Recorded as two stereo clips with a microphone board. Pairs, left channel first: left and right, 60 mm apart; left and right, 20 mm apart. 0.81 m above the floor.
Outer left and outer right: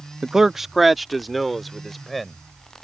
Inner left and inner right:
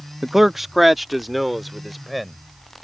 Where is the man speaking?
10° right (ahead or behind); by 2.4 s centre (ahead or behind).